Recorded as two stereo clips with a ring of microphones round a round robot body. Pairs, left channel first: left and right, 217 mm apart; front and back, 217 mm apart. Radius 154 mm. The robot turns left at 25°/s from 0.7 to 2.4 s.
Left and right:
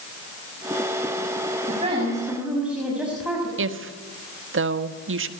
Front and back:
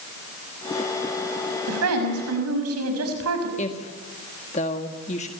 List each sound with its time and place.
1.7 s a woman speaking: 160° right, 5.5 m; by 3.5 s 175° right, 5.5 m
3.6 s a woman speaking: 65° right, 1.5 m